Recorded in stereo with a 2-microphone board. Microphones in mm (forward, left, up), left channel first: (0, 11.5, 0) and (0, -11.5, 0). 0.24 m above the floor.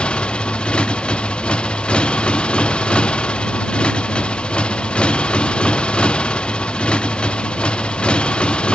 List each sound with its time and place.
0.0 s a motorcycle: 45° left (ahead or behind)